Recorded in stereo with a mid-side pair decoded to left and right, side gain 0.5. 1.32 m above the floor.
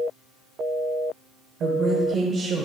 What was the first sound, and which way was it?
A woman speaking, 60° right.